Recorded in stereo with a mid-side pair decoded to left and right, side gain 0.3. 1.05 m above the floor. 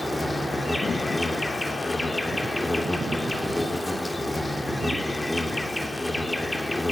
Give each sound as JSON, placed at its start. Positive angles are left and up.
{"t": 0.0, "sound": "an insect", "azimuth_deg": 15, "distance_m": 3.5}